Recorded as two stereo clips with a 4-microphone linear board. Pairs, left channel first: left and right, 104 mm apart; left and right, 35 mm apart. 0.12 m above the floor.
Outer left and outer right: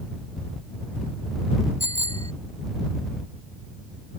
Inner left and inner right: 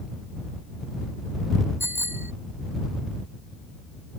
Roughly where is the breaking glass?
No breaking glass in this recording.